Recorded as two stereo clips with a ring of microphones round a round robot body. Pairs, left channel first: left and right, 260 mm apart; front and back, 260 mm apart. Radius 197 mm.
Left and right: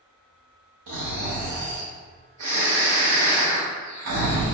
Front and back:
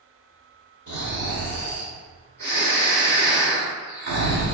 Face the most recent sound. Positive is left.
turn(degrees=-120)